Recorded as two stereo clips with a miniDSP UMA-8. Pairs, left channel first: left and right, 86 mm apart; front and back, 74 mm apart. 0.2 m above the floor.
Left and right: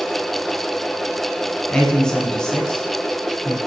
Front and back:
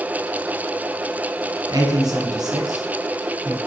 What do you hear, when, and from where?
1.7 s a man speaking: 170° left, 1.7 m